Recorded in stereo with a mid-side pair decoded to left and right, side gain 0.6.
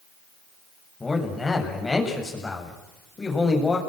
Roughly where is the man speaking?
Ahead.